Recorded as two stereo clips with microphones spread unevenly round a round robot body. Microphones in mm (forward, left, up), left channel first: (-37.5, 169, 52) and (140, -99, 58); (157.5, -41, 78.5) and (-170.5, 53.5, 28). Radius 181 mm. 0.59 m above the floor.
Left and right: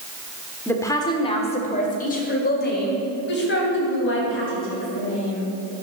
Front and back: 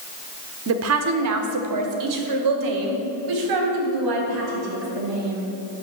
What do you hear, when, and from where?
0.7 s a woman speaking: 155° right, 1.3 m; by 5.5 s straight behind, 4.5 m